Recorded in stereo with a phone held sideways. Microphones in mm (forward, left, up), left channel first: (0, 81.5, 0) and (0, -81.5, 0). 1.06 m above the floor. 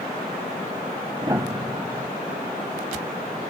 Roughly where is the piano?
Right.